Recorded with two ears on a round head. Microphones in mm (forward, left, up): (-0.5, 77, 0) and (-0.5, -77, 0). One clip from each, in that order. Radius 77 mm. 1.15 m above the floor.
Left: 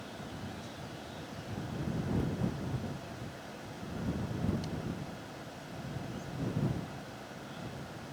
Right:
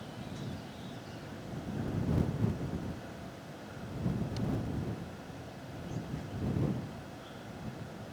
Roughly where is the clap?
No clap in this recording.